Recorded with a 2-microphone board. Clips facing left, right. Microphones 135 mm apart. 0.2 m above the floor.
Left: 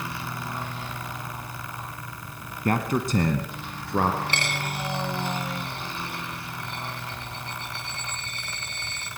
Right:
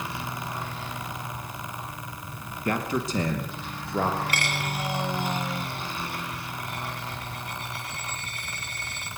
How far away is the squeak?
No squeak in this recording.